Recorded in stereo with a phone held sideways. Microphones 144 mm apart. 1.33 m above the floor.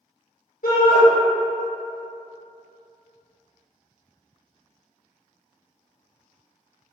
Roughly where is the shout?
Left.